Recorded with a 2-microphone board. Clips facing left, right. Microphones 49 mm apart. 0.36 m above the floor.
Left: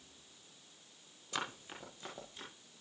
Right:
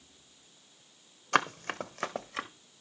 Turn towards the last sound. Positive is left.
turn(degrees=-75)  # may be behind; listen again after turning